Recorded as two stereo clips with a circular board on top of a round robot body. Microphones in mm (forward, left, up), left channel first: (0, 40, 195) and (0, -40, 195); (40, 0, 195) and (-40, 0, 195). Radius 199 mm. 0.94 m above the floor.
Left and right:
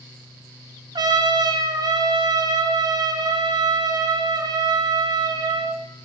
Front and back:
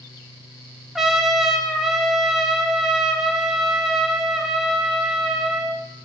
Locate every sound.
0.9 s a trumpet: 95° right, 0.5 m